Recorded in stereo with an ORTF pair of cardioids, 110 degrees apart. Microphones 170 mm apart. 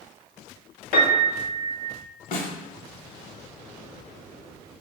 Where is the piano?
70° left, 0.9 m.